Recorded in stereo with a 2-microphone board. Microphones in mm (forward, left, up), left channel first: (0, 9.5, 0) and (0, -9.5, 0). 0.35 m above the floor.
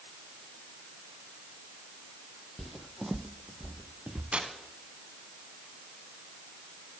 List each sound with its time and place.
2.6 s footsteps: 15° left (ahead or behind), 0.5 m; by 4.2 s 30° right (ahead or behind), 1.2 m
4.3 s tearing paper: 70° right (ahead or behind), 1.6 m